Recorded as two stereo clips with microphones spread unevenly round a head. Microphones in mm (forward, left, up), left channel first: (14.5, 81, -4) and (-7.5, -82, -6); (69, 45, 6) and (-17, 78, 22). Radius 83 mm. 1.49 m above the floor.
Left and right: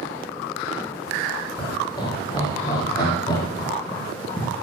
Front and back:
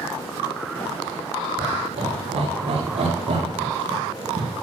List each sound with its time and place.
1.6 s laughter: 150° left, 6.5 m; by 4.5 s 155° left, 3 m